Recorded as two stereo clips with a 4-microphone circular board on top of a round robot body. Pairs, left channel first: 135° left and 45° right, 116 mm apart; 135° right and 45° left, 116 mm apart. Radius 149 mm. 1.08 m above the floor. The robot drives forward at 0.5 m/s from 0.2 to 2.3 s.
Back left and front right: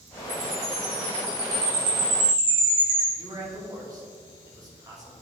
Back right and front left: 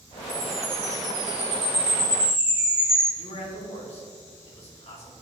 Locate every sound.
0.3 s a chime: 20° right, 2 m; by 3.1 s 40° right, 1.2 m
3.2 s a man speaking: 105° right, 2.5 m